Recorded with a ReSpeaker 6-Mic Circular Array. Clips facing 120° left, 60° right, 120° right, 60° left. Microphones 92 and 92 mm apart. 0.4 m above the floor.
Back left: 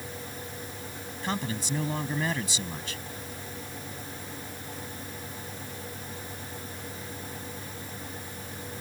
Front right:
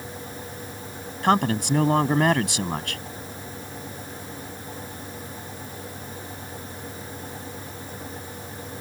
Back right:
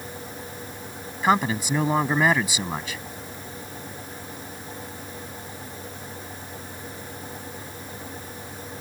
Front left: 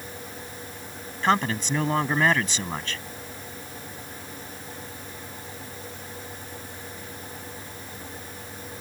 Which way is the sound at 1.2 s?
40° right.